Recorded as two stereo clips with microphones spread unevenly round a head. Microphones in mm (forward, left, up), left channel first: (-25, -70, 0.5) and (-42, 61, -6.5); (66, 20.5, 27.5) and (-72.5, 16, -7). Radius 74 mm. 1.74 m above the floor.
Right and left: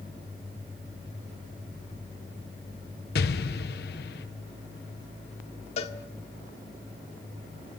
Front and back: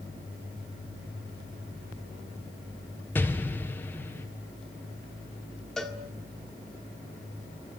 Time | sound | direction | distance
3.1 | an explosion | 75° right | 1.5 m
5.8 | a cowbell | 70° right | 1.7 m